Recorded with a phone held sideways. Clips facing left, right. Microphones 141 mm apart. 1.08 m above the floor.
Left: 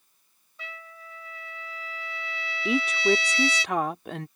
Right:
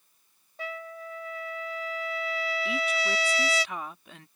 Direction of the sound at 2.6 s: 70° left (ahead or behind).